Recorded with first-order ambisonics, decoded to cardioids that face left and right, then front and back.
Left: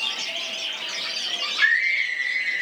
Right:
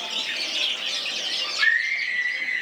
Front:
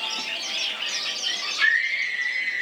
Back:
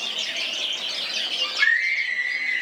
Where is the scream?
80° left, 0.8 m; by 2.6 s 70° left, 2.5 m.